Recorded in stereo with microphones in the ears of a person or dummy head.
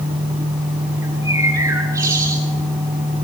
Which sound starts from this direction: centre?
A bird, at 1.0 s.